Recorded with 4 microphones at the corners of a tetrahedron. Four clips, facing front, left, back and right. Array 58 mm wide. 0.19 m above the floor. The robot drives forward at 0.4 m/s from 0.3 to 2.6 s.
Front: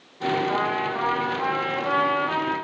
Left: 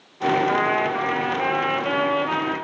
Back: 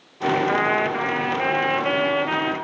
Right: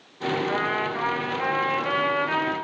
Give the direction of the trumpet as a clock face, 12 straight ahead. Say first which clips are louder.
Left 5 dB, back 4 dB; 7 o'clock.